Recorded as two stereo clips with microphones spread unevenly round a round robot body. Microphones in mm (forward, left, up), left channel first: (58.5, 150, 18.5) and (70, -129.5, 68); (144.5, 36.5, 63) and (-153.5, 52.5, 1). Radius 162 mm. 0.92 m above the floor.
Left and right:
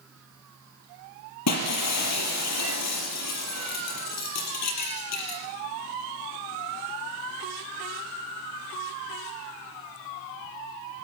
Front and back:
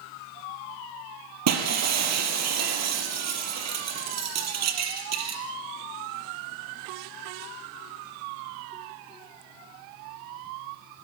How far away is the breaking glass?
About 4 m.